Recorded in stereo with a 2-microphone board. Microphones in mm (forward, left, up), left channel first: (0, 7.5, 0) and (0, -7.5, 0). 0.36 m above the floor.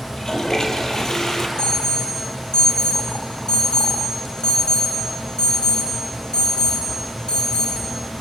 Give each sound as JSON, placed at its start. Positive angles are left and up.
{"t": 0.1, "sound": "a toilet flushing", "side_deg": 40, "distance_m": 2.5}
{"t": 1.6, "sound": "an alarm", "side_deg": 75, "distance_m": 9.0}